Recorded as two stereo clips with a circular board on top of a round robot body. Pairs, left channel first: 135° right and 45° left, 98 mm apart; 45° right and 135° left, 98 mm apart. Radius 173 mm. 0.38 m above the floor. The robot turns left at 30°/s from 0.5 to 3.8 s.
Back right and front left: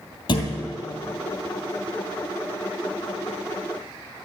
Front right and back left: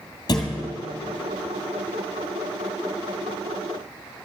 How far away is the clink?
I don't hear a clink.